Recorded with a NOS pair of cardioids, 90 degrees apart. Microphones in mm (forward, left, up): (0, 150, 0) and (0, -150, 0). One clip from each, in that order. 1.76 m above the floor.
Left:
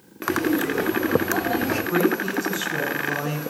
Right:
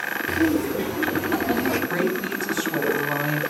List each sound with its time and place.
0.3 s laughter: 20° right, 1.4 m; by 1.8 s 35° right, 2.5 m
1.9 s a woman speaking: 35° right, 3.5 m